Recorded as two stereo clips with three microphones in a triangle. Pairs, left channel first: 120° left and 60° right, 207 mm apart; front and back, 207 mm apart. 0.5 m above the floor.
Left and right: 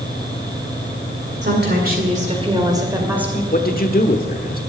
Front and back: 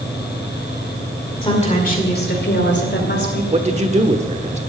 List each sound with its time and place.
1.4 s a woman speaking: 55° right, 2 m; by 3.4 s 25° left, 3 m
3.5 s a man speaking: 135° left, 1.2 m